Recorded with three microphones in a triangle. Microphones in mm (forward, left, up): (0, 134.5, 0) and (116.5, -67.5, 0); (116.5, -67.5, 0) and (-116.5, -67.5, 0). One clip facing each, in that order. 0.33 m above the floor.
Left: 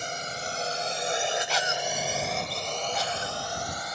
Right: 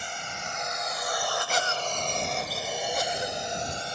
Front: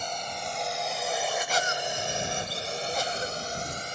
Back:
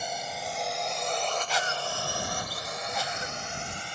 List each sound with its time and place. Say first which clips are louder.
0.0 s a drone: left 4 dB, even; 100° left; by 4.0 s 15° right
1.5 s a cough: even, front 2 dB; 35° right